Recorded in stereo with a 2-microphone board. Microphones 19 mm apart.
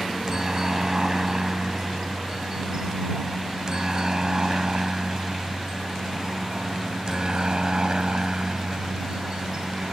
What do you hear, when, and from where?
0.0 s a helicopter: 25° right (ahead or behind); by 9.9 s 45° right (ahead or behind)